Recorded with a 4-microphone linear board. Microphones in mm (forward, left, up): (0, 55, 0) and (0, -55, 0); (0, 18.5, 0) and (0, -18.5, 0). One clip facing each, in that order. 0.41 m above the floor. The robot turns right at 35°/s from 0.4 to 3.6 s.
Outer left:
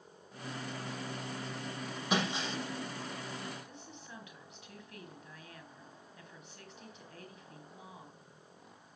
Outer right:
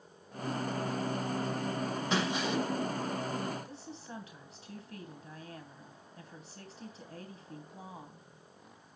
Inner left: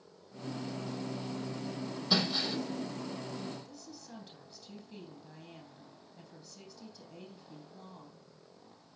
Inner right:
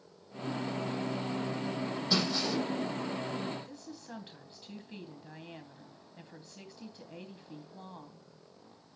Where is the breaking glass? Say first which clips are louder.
Outer right 1 dB, even; 15° left (ahead or behind), 6.5 m; by 2.6 s 35° left (ahead or behind), 6.5 m.